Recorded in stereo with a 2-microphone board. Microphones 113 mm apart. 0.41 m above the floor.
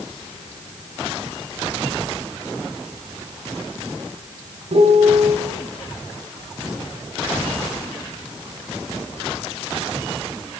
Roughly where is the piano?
Right.